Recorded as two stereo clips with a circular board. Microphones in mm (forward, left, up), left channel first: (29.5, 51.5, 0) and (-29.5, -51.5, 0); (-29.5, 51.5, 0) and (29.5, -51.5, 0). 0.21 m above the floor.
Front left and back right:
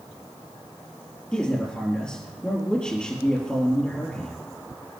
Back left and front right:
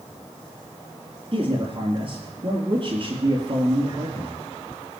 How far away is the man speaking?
About 4.5 m.